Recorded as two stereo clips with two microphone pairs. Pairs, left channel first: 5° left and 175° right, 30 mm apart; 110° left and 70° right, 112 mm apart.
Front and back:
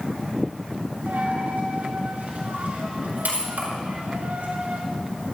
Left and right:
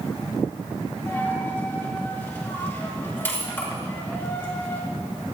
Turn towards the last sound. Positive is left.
turn(degrees=-175)